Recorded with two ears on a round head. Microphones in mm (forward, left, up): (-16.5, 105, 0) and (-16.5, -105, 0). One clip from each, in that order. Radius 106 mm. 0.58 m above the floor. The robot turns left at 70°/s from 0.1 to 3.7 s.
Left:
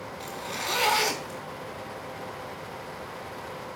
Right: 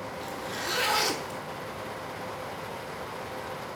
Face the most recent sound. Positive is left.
turn(degrees=-155)